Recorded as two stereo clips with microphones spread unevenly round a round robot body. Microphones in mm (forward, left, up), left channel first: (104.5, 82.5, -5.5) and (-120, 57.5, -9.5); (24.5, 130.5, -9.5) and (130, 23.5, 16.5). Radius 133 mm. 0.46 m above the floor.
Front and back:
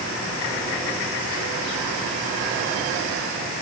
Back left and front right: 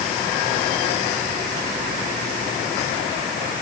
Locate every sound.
Only background noise.